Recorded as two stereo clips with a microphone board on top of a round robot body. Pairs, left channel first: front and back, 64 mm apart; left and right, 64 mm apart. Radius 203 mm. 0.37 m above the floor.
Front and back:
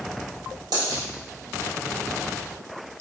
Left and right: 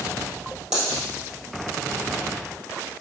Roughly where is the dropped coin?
Behind.